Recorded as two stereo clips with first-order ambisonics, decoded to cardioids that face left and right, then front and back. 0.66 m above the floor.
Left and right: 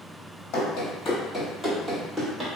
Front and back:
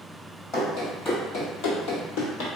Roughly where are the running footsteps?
Ahead left.